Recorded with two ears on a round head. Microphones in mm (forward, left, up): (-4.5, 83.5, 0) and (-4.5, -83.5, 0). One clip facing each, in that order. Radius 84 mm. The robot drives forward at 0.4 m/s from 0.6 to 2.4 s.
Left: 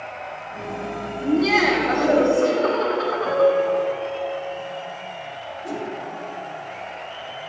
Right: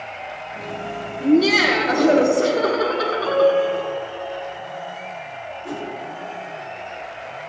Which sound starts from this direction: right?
Laughter, at 1.2 s.